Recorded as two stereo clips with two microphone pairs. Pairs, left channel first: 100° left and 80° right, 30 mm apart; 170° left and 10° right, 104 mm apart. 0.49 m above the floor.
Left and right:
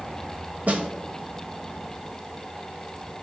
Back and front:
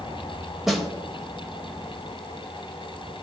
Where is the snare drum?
100° right, 0.7 m.